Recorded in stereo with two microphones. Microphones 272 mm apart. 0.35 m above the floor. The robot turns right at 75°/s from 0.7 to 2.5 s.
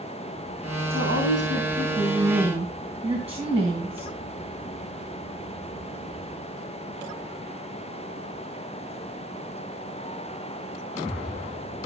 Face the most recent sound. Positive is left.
turn(degrees=-5)